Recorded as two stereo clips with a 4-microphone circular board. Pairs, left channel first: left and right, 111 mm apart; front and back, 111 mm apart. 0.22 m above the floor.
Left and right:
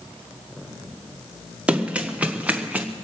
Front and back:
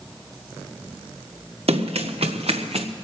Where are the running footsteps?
170° right, 1.7 m; by 2.9 s 165° right, 1.0 m.